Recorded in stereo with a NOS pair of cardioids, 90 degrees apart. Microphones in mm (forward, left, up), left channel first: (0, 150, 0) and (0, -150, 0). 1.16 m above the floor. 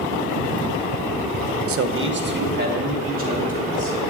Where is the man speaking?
55° right, 0.9 m; by 4.0 s 25° right, 4 m.